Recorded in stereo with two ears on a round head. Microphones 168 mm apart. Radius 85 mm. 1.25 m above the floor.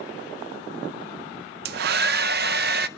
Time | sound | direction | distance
1.6 | a hair dryer | 55° right (ahead or behind) | 0.5 m